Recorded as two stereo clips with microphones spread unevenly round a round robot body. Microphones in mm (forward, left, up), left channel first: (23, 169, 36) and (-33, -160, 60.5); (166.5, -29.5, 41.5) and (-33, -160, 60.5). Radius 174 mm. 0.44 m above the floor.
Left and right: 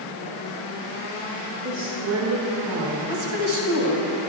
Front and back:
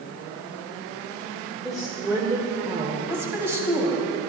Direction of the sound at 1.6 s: 50° right.